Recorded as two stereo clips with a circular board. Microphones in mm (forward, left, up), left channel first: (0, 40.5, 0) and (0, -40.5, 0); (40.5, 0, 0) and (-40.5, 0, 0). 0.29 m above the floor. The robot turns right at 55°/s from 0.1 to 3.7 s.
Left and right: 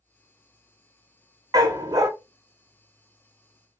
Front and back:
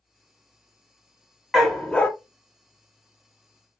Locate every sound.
1.5 s a dog barking: 95° right, 0.5 m; by 2.1 s 65° right, 0.5 m